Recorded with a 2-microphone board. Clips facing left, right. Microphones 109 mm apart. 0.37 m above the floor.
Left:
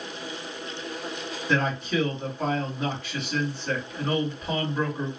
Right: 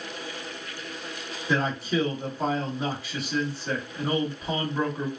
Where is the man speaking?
10° right (ahead or behind), 1.6 m.